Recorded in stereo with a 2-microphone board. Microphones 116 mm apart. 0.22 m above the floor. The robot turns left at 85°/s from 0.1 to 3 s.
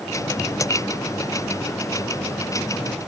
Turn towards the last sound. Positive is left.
No sound to turn to.